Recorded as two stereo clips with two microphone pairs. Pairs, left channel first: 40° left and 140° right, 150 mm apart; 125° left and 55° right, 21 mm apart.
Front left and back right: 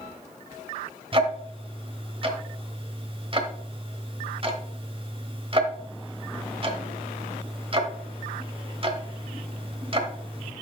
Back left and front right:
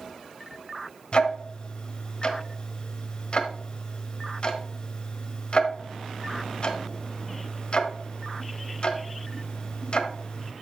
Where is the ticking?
165° left, 1.2 m.